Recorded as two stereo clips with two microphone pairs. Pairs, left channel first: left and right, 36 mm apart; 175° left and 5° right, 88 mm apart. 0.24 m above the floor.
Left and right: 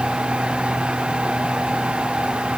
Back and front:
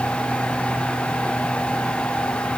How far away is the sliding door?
No sliding door in this recording.